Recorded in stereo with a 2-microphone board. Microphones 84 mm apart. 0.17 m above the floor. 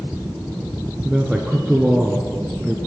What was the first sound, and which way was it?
A man speaking, 10° right (ahead or behind).